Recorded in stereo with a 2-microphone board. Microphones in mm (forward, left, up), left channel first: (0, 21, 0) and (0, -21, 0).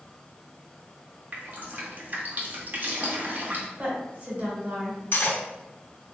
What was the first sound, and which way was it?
Dripping, 50° right (ahead or behind).